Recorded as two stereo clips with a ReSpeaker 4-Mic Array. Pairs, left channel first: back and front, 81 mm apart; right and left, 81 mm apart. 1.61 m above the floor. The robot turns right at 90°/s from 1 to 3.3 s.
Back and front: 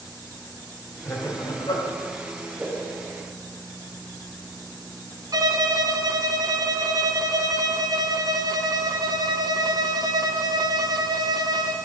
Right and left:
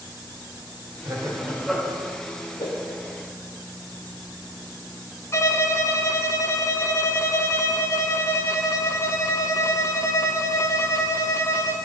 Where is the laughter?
120° left, 3.5 m; by 1.9 s 165° right, 3.5 m.